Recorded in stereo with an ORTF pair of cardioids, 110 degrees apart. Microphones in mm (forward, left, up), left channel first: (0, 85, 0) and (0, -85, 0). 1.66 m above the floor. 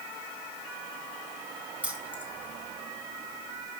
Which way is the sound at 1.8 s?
10° right.